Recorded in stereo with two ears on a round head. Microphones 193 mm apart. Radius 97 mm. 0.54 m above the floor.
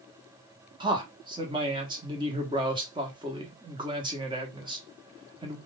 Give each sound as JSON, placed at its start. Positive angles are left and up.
{"t": 0.8, "sound": "a man speaking", "side_deg": -20, "distance_m": 1.1}